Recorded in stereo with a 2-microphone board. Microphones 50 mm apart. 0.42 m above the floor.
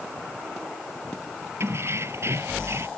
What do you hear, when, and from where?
1.6 s keys jangling: 60° right (ahead or behind)